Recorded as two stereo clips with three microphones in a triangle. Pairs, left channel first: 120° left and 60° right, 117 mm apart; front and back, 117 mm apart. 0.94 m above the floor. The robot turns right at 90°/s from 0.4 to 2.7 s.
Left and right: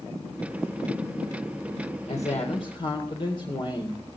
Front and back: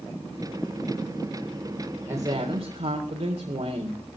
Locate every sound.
2.1 s a woman speaking: 105° left, 3.5 m; by 4.0 s 165° left, 3.5 m